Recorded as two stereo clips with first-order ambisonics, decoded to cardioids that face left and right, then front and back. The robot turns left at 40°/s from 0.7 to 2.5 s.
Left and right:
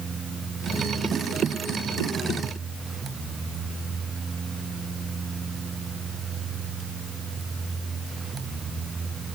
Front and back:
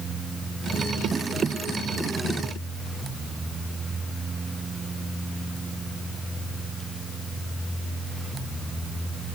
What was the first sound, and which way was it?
Only background noise.